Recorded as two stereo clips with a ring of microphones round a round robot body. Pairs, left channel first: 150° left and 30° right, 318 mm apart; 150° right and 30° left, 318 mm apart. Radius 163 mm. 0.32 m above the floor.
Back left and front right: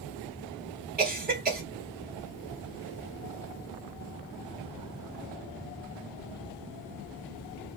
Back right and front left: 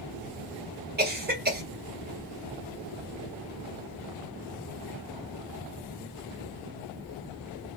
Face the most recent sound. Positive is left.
turn(degrees=5)